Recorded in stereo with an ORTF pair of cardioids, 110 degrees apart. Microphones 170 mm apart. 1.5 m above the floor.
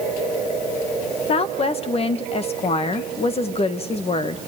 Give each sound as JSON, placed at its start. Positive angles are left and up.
{"t": 1.3, "sound": "a woman speaking", "azimuth_deg": 35, "distance_m": 1.7}